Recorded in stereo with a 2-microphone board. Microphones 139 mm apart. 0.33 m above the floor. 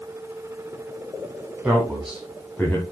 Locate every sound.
1.6 s a man speaking: 10° right (ahead or behind), 2 m; by 2.8 s 15° left (ahead or behind), 1.9 m